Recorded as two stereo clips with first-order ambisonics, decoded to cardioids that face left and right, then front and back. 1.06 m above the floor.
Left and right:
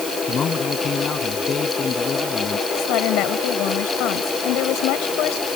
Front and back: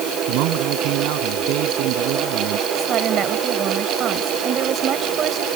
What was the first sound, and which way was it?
A man speaking, 155° left.